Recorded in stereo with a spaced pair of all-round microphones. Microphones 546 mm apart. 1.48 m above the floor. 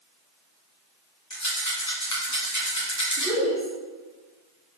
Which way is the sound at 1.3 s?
30° left (ahead or behind).